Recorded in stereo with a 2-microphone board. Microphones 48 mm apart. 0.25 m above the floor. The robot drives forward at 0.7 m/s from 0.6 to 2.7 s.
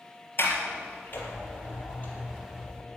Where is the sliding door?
45° left (ahead or behind), 3.5 m; by 2.8 s 35° left (ahead or behind), 5 m.